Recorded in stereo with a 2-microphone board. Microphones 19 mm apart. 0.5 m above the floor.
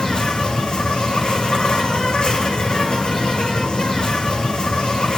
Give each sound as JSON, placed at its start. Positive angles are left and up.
{"t": 0.0, "sound": "an insect", "side_deg": 80, "distance_m": 2.5}